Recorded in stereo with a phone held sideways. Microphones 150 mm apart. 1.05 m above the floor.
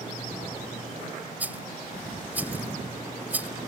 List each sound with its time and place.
1.4 s a rattle: 10° right (ahead or behind)